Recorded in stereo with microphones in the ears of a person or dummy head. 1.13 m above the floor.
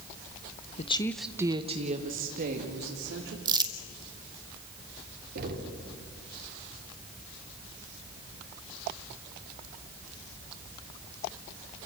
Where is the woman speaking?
40° left (ahead or behind), 0.7 m; by 3.4 s 55° right (ahead or behind), 2.5 m.